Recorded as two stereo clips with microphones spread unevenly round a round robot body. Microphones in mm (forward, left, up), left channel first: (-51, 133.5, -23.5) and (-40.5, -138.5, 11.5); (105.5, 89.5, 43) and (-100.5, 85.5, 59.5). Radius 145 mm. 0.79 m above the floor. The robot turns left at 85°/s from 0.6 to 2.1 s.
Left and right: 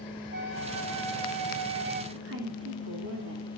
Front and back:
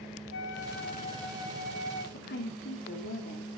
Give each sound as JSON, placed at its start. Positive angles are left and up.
{"t": 0.3, "sound": "a flute", "azimuth_deg": -30, "distance_m": 1.3}
{"t": 2.1, "sound": "a woman speaking", "azimuth_deg": -35, "distance_m": 2.0}